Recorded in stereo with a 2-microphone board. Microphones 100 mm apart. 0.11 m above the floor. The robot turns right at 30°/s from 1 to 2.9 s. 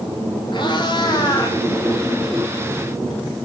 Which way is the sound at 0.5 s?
50° left (ahead or behind).